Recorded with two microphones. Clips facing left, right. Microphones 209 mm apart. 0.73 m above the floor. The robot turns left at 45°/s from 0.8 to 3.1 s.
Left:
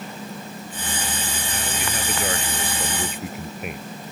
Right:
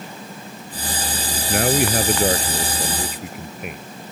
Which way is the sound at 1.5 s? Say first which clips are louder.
Right 15 dB; 105° right.